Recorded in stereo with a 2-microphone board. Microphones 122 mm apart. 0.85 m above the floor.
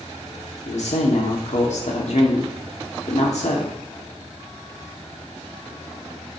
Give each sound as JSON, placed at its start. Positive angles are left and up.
{"t": 0.7, "sound": "a man speaking", "side_deg": 70, "distance_m": 2.0}